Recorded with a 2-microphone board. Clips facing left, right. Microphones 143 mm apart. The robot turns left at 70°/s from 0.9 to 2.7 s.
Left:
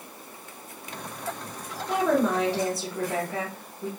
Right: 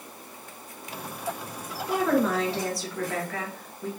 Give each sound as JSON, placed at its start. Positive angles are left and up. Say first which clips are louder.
{"t": 1.9, "sound": "a woman speaking", "louder": "left 1 dB", "side_deg": 0, "distance_m": 1.4}